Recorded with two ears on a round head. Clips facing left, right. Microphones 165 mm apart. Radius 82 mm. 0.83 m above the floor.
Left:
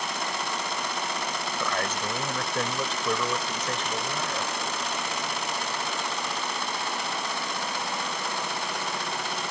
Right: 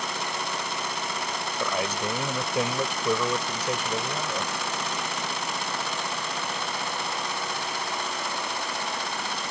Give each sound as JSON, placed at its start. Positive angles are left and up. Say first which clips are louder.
{"t": 1.6, "sound": "a man speaking", "louder": "right 3 dB", "side_deg": -10}